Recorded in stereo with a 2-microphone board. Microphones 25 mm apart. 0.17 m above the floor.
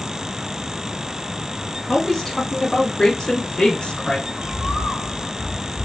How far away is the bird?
About 1.2 m.